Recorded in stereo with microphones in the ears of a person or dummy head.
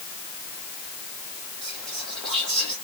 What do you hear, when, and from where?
1.6 s whispering: 5° left (ahead or behind), 1.3 m